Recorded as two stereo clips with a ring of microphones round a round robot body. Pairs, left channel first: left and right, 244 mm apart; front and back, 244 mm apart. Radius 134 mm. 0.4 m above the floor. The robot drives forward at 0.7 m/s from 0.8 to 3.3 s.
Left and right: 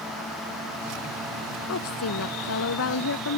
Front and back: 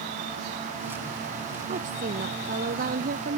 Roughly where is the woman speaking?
Behind left.